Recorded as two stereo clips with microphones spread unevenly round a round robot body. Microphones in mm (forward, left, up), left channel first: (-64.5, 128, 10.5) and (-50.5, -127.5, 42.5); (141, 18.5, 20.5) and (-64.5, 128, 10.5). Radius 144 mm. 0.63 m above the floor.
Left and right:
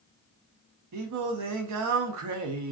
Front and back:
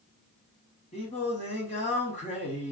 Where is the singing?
95° right, 0.6 m.